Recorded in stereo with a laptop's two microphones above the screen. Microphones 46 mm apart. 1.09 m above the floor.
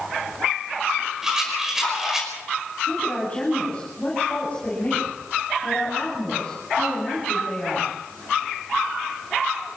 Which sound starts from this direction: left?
A woman speaking, at 2.9 s.